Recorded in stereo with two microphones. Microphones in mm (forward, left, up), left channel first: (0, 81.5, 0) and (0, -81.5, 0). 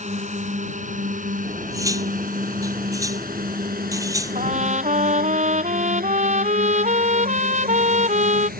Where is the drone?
45° right (ahead or behind); by 8.6 s 65° right (ahead or behind).